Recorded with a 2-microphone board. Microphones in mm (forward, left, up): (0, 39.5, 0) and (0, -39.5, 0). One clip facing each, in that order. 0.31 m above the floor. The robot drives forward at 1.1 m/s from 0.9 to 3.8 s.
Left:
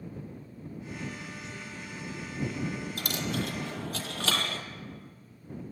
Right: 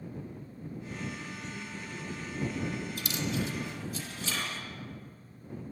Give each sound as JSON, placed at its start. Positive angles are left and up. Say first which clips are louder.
{"t": 1.2, "sound": "a man speaking", "louder": "right 1 dB", "side_deg": 0, "distance_m": 1.8}
{"t": 3.0, "sound": "a dropped coin", "louder": "left 1 dB", "side_deg": 55, "distance_m": 2.5}